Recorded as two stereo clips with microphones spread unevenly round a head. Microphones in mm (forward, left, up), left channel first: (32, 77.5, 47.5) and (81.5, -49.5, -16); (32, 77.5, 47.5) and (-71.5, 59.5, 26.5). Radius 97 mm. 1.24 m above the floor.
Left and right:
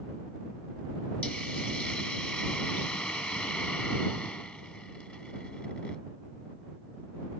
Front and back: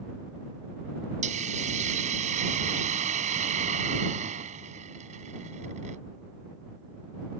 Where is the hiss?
170° right.